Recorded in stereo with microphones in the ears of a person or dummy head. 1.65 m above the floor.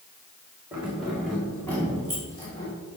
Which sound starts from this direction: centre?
Keys jangling, at 0.7 s.